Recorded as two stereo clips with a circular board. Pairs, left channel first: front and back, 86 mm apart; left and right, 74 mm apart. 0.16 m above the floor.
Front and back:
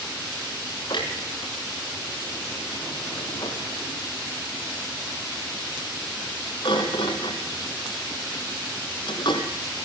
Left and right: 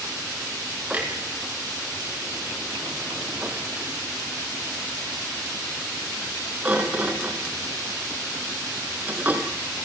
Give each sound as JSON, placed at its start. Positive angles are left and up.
{"t": 0.9, "sound": "a clunk", "azimuth_deg": -20, "distance_m": 2.5}